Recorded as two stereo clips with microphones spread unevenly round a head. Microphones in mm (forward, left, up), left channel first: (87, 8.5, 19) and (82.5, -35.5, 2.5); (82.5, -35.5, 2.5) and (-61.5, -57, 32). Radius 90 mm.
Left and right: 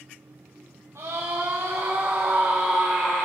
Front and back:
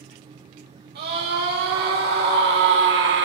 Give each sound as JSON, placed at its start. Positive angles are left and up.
{"t": 0.9, "sound": "a scream", "azimuth_deg": -160, "distance_m": 3.0}